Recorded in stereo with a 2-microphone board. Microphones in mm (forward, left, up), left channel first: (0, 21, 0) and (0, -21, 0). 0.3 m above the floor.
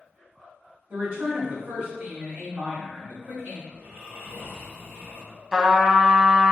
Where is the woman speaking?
50° right (ahead or behind), 2 m.